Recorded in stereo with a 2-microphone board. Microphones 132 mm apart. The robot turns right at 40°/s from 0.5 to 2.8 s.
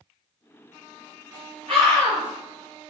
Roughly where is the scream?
Right.